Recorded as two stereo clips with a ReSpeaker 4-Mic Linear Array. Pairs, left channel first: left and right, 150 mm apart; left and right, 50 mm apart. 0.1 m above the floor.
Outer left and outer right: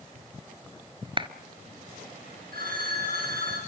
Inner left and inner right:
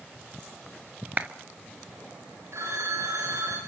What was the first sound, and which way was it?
A clap, 35° right (ahead or behind).